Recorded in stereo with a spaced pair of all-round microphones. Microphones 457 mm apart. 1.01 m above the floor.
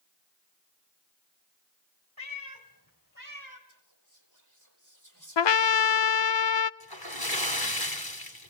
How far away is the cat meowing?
About 3 m.